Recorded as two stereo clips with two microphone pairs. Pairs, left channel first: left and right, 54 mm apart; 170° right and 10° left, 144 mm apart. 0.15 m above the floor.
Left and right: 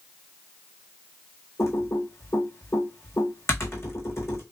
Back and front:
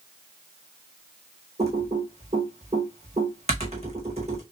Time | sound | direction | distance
1.6 | typing on a keyboard | 55° left | 1.7 m